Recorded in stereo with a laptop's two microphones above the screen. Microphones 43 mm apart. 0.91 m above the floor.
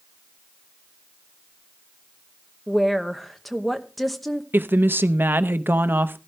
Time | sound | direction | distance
2.7 | a woman speaking | 5° left (ahead or behind) | 0.9 m
4.5 | a woman speaking | 55° right (ahead or behind) | 0.8 m